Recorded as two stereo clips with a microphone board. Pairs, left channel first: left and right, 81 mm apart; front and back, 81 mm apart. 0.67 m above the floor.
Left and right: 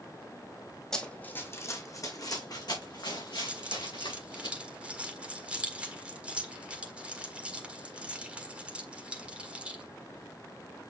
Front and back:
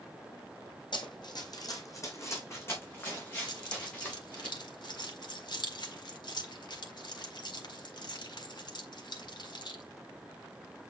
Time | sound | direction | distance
0.9 | running footsteps | 10° left | 1.8 m
3.5 | keys jangling | 15° right | 1.5 m